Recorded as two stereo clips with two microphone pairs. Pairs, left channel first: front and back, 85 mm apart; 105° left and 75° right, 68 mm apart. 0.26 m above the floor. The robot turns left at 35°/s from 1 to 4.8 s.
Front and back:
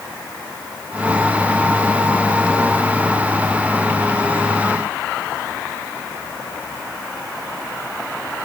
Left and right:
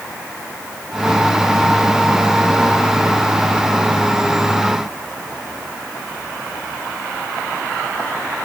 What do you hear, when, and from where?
Only background noise.